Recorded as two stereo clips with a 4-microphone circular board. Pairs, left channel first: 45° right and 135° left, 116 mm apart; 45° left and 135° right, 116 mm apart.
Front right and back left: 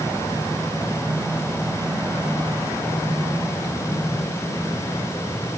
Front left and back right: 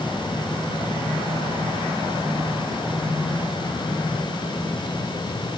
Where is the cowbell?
No cowbell in this recording.